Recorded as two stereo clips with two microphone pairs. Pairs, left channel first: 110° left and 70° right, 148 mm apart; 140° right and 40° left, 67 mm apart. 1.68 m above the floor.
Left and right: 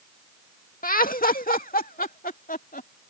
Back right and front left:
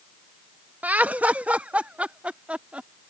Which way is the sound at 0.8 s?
105° left.